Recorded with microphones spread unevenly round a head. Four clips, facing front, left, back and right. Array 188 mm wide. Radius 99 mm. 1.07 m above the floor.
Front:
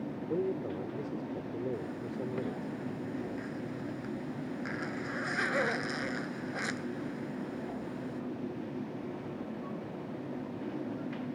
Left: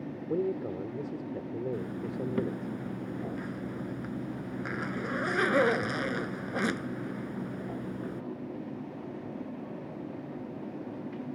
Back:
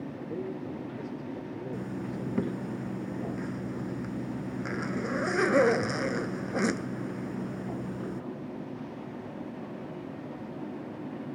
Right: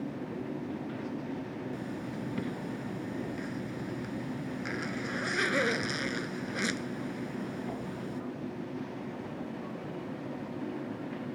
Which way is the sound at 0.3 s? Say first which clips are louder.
Left 6 dB, front 4 dB; 70° left.